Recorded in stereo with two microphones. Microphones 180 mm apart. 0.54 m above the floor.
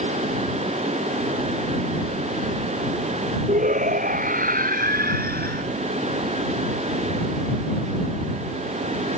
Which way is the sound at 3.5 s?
45° right (ahead or behind).